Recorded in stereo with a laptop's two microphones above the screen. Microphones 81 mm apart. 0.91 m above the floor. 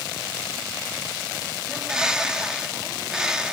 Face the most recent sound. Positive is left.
turn(degrees=-10)  # may be behind; listen again after turning